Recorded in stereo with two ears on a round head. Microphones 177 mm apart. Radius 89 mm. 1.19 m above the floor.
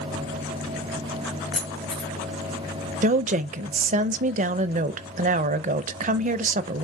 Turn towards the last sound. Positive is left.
turn(degrees=-40)  # may be behind; listen again after turning